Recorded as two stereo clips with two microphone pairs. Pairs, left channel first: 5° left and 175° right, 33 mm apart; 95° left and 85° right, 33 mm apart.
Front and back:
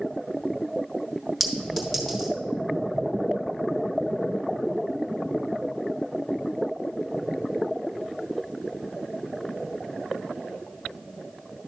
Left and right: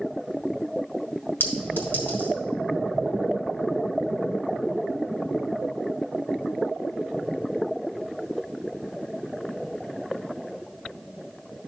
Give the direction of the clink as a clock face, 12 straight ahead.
9 o'clock.